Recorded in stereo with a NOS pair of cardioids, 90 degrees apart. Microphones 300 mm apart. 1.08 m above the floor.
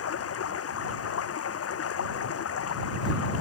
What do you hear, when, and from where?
0.0 s running water: 50° left